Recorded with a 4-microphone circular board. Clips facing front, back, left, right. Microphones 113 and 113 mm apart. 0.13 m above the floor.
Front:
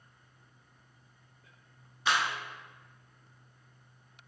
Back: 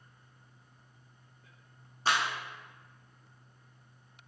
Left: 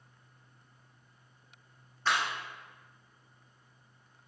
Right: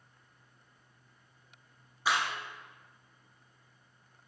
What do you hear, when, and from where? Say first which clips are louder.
2.0 s a clap: even, even; 165° right, 1.2 m